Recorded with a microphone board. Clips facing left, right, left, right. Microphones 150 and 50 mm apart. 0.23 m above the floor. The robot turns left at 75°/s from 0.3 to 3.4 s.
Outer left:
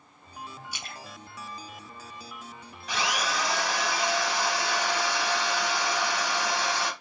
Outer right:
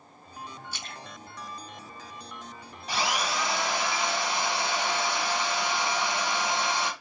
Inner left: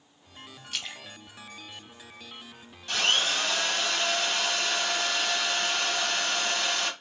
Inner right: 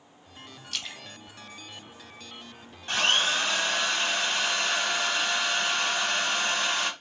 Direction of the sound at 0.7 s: 15° left (ahead or behind).